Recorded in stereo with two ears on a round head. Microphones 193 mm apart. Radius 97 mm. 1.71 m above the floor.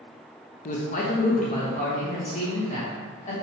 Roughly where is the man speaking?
Left.